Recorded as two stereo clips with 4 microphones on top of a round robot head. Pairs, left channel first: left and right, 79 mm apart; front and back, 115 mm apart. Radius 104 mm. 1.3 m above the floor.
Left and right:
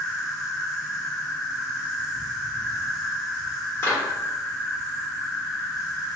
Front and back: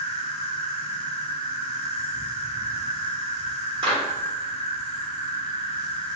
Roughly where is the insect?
Ahead.